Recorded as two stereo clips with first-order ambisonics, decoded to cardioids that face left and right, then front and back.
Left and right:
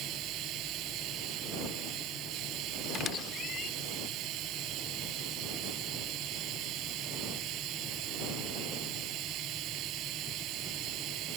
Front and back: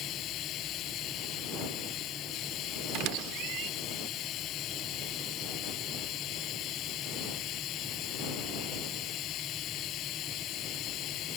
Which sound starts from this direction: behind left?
A squeak, at 2.9 s.